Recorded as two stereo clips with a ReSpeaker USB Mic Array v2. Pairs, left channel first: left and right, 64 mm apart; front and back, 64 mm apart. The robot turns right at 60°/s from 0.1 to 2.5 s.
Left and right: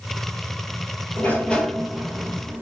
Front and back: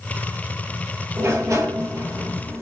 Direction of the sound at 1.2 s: 140° left.